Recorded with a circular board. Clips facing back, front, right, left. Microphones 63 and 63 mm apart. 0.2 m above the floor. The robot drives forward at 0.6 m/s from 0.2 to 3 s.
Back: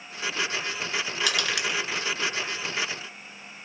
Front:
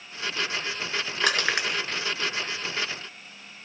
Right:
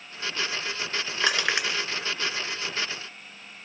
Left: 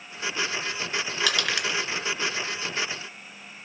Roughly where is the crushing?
Ahead right.